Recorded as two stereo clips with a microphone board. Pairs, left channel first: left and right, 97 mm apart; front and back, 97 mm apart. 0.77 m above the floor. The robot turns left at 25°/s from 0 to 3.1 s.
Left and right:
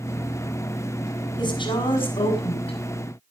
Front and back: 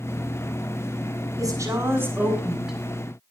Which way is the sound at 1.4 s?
130° left.